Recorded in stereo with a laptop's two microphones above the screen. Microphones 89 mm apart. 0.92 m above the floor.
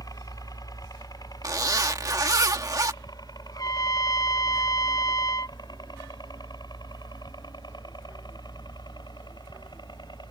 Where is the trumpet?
45° left (ahead or behind).